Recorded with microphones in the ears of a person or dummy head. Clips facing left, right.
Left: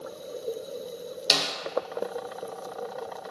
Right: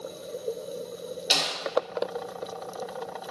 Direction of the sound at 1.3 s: 70° left (ahead or behind).